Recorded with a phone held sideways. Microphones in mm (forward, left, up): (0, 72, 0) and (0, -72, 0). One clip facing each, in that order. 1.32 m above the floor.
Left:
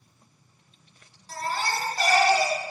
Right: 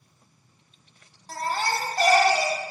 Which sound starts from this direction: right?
A baby crying, at 1.3 s.